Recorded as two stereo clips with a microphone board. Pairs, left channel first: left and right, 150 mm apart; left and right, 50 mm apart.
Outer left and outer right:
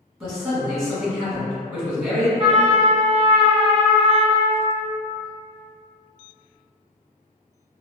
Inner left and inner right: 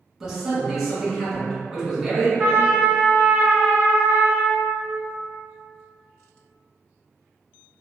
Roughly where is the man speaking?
Centre.